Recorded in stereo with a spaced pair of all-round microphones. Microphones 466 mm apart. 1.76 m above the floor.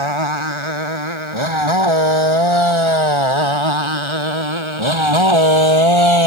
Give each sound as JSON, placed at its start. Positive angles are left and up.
{"t": 0.0, "sound": "a motorcycle", "side_deg": -85}